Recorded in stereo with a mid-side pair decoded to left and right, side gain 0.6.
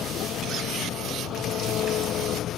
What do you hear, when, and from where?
0.0 s an engine running: 55° left